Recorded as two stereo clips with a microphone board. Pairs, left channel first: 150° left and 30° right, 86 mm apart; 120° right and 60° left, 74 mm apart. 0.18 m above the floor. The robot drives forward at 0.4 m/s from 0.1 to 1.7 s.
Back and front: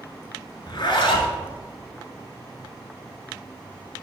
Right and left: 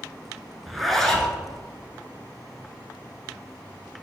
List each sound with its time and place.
0.7 s a zipper: 150° left, 0.7 m; by 1.4 s 160° left, 1.0 m